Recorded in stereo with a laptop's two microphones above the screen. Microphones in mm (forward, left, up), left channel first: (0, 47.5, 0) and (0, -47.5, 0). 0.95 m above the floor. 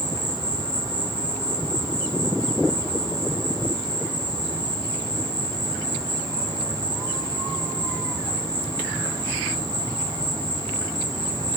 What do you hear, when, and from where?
0.0 s an insect: 55° right (ahead or behind), 5.5 m